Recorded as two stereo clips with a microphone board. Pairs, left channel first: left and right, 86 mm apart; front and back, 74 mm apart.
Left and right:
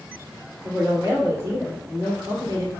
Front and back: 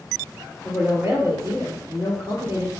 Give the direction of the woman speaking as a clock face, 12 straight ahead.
5 o'clock.